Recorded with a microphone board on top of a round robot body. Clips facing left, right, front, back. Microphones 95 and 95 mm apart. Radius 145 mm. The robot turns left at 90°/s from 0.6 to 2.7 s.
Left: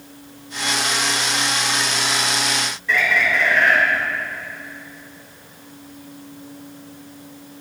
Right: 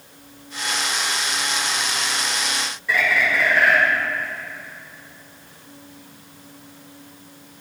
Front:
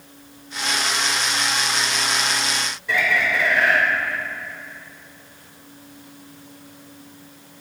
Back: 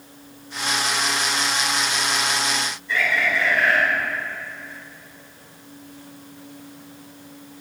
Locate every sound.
2.9 s a bird: 5° right, 3 m